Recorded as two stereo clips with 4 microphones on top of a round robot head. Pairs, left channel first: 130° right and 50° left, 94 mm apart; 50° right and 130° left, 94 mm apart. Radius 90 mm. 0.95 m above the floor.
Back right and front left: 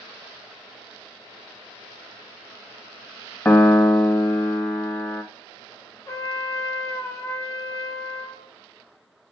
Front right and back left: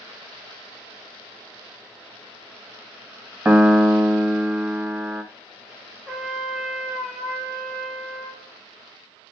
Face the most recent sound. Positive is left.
turn(degrees=-150)